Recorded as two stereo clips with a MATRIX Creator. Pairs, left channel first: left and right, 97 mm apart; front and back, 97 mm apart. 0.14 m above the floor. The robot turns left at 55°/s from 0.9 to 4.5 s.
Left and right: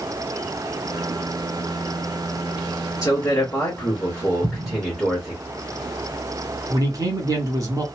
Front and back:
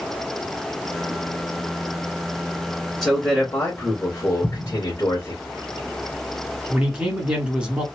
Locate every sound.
3.0 s a man speaking: 80° left, 1.9 m; by 5.4 s straight ahead, 1.9 m
4.4 s an explosion: 95° right, 1.1 m; by 4.8 s 100° right, 1.1 m
6.7 s a man speaking: 105° right, 1.4 m